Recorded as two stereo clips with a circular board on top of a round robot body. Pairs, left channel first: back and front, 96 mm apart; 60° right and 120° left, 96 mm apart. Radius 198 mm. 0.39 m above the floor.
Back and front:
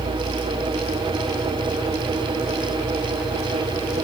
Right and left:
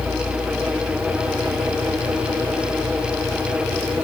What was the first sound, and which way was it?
Only background noise.